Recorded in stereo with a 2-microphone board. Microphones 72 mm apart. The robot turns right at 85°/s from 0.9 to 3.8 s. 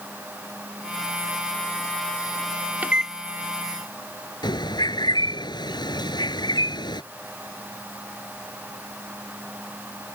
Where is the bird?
75° left (ahead or behind).